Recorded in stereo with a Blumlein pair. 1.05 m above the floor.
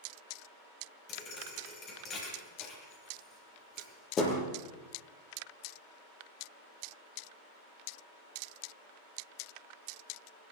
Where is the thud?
25° left, 8.5 m.